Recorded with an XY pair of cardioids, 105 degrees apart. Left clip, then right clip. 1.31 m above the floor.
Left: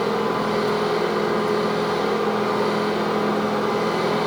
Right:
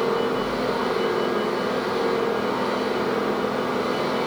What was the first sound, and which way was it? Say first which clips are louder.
A machine running: left 1 dB; 45° left.